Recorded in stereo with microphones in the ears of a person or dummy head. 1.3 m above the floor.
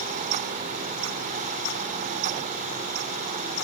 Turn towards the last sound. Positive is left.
No sound to turn to.